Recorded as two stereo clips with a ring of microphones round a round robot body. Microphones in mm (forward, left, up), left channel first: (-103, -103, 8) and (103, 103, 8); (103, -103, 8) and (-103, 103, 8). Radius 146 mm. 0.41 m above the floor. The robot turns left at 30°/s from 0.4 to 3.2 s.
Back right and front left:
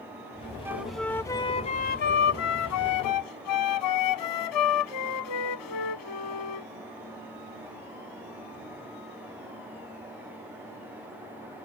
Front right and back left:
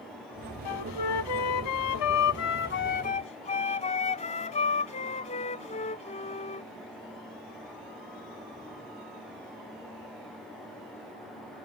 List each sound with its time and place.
0.7 s a flute: 35° right; by 6.7 s 115° right